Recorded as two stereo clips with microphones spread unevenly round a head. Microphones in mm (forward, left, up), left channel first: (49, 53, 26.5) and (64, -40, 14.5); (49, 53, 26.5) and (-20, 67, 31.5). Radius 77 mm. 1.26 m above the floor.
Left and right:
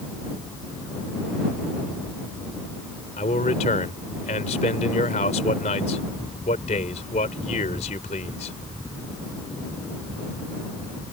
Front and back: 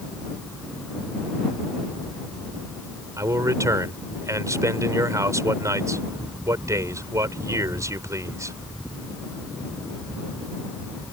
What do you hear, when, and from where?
3.2 s a man speaking: 125° left